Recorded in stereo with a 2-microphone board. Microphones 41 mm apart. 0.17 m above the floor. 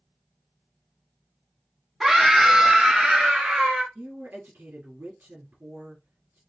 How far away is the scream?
About 1.2 m.